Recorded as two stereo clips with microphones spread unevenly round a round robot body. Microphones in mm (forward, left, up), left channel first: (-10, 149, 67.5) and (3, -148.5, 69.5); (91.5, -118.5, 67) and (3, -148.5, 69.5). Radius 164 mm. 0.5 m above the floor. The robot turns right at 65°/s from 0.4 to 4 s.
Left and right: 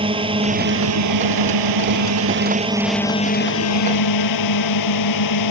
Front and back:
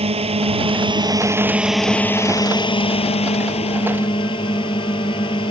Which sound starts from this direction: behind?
A drone, at 0.0 s.